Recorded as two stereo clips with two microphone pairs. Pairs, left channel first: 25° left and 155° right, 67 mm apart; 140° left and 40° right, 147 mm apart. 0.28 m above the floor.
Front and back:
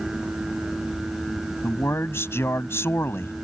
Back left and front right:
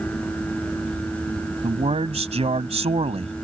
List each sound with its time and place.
1.6 s a man speaking: 10° right